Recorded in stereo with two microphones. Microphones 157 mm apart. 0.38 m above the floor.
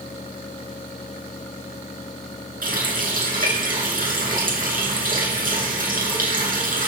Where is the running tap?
65° right (ahead or behind), 3.5 m.